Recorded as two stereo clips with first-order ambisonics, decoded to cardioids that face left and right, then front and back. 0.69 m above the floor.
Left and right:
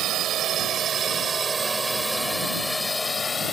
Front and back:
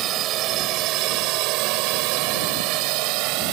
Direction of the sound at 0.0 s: 135° right.